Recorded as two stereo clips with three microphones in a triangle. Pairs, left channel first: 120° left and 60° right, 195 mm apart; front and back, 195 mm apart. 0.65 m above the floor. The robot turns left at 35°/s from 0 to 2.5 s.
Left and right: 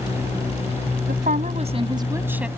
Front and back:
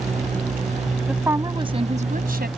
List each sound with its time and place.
1.1 s a woman speaking: 95° right; by 2.5 s 145° right